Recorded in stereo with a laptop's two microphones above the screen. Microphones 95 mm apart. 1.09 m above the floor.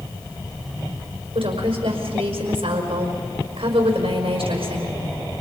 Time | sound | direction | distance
1.4 | a woman speaking | 80° right | 5 m